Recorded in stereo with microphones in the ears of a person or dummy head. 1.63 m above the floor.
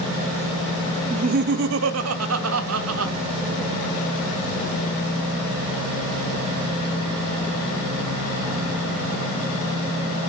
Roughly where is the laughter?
Right.